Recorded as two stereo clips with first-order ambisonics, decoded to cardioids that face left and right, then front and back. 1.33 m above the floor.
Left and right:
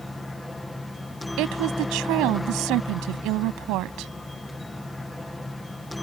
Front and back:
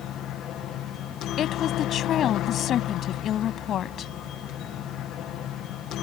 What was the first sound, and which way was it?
A helicopter, 5° left.